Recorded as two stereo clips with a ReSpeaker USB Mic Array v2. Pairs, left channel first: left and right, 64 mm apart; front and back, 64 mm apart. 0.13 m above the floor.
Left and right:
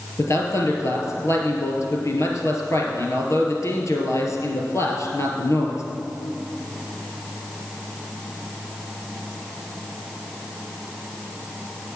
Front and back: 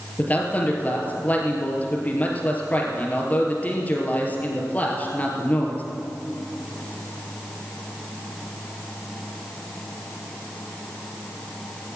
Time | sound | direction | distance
0.2 | a man speaking | 60° left | 3 m